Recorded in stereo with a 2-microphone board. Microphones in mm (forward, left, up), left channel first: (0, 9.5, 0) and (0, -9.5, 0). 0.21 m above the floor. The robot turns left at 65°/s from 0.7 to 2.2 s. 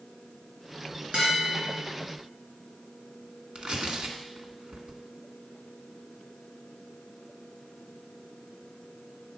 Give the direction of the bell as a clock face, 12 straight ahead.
2 o'clock.